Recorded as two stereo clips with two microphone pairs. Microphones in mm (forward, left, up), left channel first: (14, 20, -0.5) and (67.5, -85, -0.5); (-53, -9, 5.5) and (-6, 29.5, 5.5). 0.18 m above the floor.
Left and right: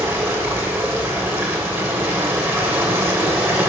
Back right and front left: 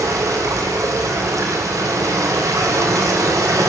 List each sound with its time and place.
0.0 s running water: 10° left, 2.5 m